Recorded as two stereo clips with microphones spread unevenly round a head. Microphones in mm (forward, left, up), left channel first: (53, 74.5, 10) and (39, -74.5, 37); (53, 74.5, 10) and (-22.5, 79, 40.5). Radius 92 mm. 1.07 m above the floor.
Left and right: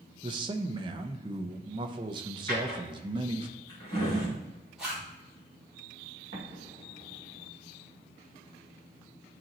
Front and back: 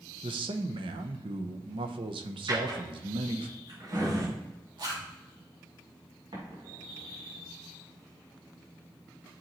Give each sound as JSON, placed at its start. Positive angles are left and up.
{"t": 0.2, "sound": "a man speaking", "azimuth_deg": -160, "distance_m": 0.6}
{"t": 2.5, "sound": "a drawer", "azimuth_deg": 165, "distance_m": 3.5}
{"t": 4.8, "sound": "a zipper", "azimuth_deg": 180, "distance_m": 2.5}
{"t": 6.3, "sound": "an explosion", "azimuth_deg": -145, "distance_m": 2.0}